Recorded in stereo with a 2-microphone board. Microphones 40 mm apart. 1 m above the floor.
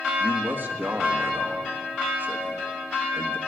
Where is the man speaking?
55° right (ahead or behind), 1.8 m.